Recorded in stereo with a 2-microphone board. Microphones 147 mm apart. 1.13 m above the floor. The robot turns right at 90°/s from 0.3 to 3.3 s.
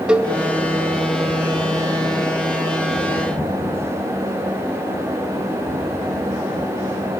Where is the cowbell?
5° right (ahead or behind), 0.9 m; by 0.3 s 10° right (ahead or behind), 0.9 m.